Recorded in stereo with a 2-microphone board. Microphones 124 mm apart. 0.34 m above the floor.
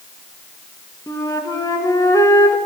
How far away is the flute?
About 1.5 m.